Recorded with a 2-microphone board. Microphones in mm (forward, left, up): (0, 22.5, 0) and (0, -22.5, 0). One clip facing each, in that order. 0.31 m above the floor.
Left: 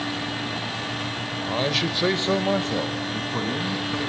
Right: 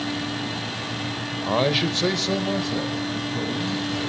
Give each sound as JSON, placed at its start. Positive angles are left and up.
{"t": 1.5, "sound": "a man speaking", "side_deg": -25, "distance_m": 1.0}